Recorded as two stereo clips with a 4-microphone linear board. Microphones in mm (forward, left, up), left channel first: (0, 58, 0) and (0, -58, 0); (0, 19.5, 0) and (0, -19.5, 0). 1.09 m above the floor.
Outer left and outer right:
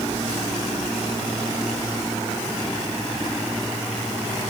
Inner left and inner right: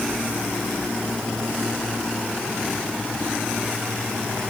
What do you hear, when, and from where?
Only background noise.